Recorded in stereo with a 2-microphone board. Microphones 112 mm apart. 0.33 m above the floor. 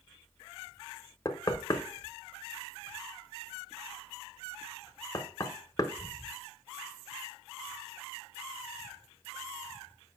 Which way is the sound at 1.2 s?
30° left (ahead or behind).